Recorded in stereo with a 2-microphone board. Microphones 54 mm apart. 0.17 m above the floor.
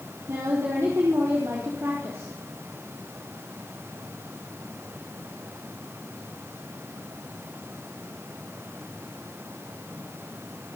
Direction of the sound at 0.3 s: 65° right (ahead or behind).